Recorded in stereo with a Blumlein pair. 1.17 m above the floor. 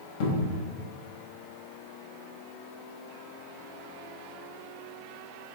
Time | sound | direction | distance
0.2 | a cupboard door | 45° left | 0.9 m